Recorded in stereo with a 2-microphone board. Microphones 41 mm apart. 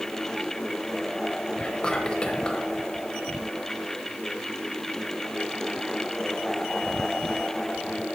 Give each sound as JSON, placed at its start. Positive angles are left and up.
{"t": 1.6, "sound": "whispering", "side_deg": 25, "distance_m": 1.0}